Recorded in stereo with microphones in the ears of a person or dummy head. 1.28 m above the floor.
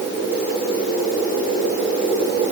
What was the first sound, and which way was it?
Only background noise.